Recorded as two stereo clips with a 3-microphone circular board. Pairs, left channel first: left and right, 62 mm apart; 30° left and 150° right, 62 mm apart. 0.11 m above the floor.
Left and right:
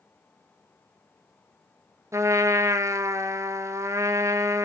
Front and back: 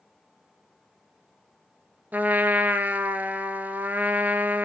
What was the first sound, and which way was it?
A trumpet, 95° right.